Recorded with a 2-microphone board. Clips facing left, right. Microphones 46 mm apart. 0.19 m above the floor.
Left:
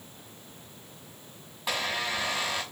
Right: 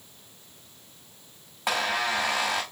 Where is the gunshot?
I don't hear a gunshot.